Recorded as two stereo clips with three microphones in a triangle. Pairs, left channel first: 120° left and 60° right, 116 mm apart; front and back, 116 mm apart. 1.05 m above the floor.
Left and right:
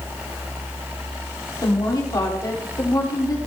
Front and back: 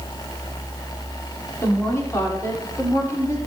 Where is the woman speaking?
65° left, 3 m.